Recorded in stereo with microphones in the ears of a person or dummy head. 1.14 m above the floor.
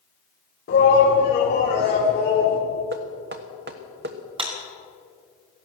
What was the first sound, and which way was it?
A shout, 50° left (ahead or behind).